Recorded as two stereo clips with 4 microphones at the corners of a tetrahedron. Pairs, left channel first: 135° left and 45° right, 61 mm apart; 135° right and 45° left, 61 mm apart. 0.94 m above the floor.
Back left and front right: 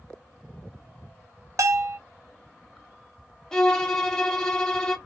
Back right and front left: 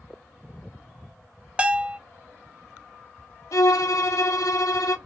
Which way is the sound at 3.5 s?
145° right.